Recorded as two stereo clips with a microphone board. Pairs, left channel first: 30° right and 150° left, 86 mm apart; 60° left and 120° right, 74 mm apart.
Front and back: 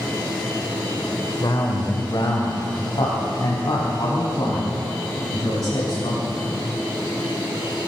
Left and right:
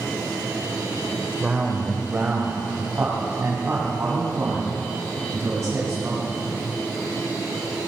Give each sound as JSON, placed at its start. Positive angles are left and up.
{"t": 1.4, "sound": "a man speaking", "azimuth_deg": -50, "distance_m": 1.5}